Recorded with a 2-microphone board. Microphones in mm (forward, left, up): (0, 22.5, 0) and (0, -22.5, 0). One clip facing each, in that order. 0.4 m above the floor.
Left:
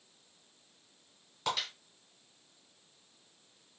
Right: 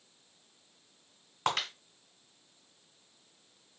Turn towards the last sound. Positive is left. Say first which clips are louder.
# right 3 dB
turn(degrees=-55)  # may be behind; listen again after turning